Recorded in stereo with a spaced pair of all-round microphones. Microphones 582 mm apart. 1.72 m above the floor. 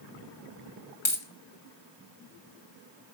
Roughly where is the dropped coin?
Left.